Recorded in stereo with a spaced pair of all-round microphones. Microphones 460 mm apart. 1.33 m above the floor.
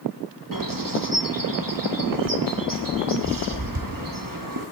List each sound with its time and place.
0.5 s a bird: 45° right (ahead or behind), 1.0 m